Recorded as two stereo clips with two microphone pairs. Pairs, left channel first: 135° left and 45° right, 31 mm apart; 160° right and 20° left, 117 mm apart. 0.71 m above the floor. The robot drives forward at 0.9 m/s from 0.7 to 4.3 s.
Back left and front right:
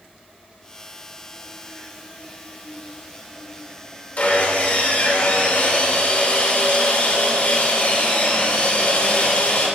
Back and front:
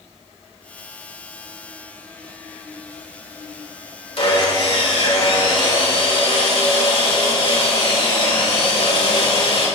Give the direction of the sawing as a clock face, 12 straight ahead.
6 o'clock.